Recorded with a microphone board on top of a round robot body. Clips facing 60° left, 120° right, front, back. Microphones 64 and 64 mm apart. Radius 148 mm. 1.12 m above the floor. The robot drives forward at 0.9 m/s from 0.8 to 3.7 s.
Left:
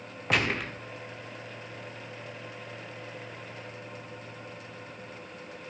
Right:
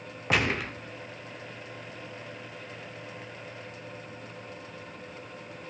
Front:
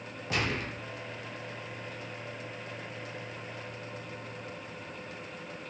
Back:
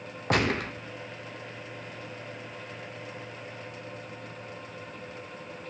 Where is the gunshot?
155° left, 1.2 m.